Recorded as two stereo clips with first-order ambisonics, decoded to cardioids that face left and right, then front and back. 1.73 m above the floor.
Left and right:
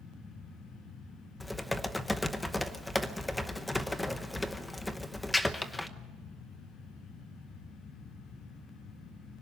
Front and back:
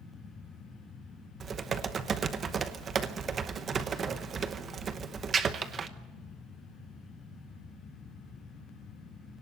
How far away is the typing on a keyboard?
About 0.9 m.